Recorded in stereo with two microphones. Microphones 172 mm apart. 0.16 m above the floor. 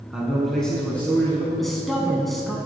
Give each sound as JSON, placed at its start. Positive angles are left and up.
{"t": 0.1, "sound": "a man speaking", "side_deg": -5, "distance_m": 1.8}
{"t": 1.6, "sound": "a man speaking", "side_deg": 0, "distance_m": 1.1}